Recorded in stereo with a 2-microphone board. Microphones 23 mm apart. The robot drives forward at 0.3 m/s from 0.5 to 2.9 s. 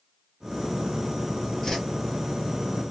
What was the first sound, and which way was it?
A whoosh, 25° left (ahead or behind).